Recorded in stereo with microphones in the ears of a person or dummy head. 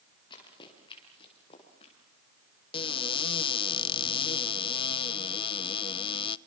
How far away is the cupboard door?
About 0.6 m.